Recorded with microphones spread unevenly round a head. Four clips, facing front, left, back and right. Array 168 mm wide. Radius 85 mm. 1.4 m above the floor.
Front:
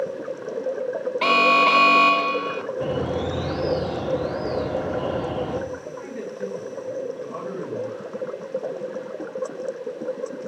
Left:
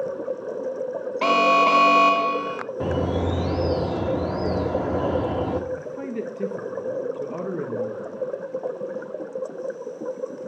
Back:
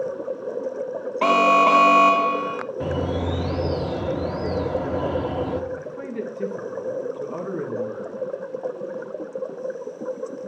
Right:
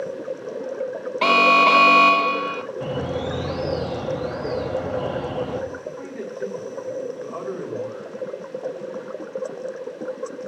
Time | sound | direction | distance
1.2 | an alarm | 120° right | 0.6 m
2.8 | a bird | 100° left | 1.5 m
5.8 | a man speaking | 115° left | 1.6 m